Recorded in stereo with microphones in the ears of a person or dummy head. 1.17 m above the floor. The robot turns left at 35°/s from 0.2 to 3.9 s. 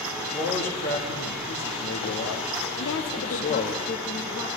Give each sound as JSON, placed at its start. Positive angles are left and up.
{"t": 0.2, "sound": "a man speaking", "azimuth_deg": 155, "distance_m": 1.5}
{"t": 2.8, "sound": "a woman speaking", "azimuth_deg": 90, "distance_m": 0.8}